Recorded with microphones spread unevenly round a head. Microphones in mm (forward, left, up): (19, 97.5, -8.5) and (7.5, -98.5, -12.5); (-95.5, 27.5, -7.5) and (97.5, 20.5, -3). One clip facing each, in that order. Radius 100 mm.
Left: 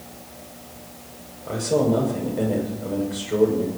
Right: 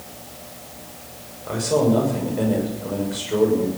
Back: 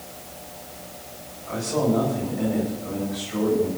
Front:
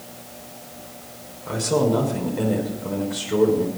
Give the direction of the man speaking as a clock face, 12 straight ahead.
12 o'clock.